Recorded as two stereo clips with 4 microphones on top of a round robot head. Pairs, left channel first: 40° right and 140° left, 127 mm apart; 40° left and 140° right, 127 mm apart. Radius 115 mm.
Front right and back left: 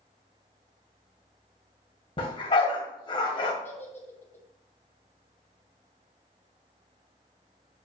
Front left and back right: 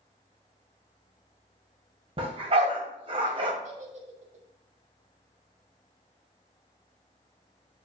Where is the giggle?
115° right, 2.5 m.